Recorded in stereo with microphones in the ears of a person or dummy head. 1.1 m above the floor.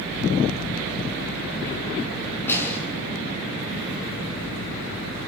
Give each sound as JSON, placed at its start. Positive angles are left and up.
{"t": 2.5, "sound": "a snare drum", "side_deg": 10, "distance_m": 6.5}